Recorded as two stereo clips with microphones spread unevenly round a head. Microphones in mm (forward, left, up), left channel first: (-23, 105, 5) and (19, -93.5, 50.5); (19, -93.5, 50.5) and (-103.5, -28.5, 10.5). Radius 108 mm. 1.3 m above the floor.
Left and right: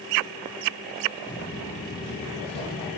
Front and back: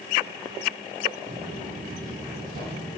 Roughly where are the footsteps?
Behind left.